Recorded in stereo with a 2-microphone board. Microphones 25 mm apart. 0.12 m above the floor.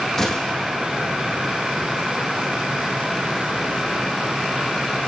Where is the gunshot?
15° left (ahead or behind), 4.5 m.